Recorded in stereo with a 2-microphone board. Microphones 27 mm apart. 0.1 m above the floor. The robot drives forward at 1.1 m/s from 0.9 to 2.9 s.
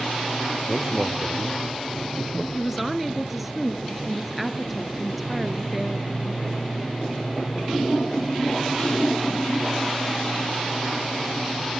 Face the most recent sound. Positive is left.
turn(degrees=-5)  # may be behind; listen again after turning